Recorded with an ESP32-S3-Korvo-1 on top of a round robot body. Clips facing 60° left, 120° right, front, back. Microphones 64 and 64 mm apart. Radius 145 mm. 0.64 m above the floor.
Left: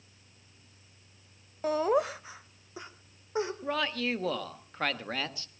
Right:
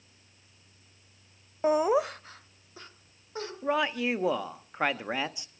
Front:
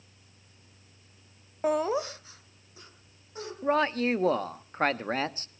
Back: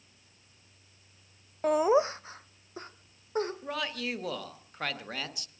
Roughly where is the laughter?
Right.